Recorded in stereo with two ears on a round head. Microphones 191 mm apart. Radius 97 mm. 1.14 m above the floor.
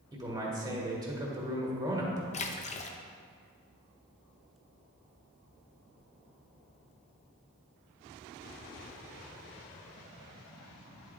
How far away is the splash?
About 0.6 m.